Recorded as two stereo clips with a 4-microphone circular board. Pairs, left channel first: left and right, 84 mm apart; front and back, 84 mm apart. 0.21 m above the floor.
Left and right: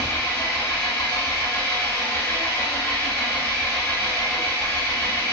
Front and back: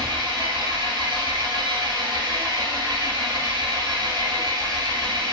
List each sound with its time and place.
0.0 s an engine running: 160° left, 0.9 m